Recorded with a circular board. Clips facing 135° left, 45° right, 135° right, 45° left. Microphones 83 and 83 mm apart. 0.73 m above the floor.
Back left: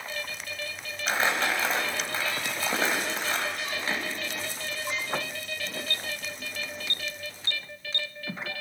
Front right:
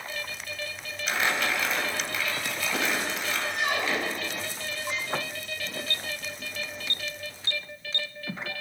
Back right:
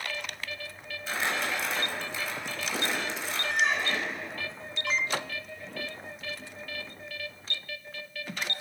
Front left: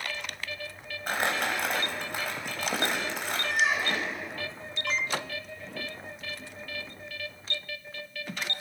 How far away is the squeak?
About 0.5 m.